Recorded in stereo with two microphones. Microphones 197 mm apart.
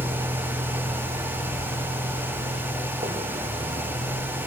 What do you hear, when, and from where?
0.0 s a vehicle: 20° right (ahead or behind); by 4.5 s 35° right (ahead or behind)